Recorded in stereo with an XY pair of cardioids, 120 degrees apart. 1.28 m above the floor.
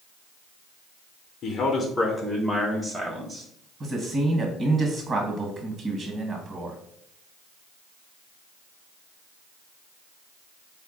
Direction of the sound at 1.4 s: 55° left.